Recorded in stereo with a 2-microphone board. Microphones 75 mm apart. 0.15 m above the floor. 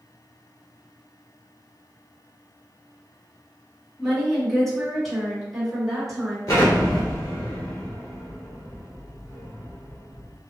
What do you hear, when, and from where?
4.0 s a woman speaking: 10° left (ahead or behind), 1.6 m; by 6.4 s centre (ahead or behind), 1.7 m
6.5 s an explosion: 50° left (ahead or behind), 1.6 m